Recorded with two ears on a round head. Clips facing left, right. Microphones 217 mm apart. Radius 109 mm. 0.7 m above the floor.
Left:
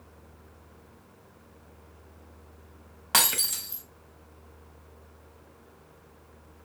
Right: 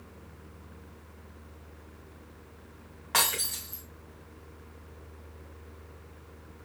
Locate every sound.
3.1 s breaking glass: 55° left (ahead or behind), 1.9 m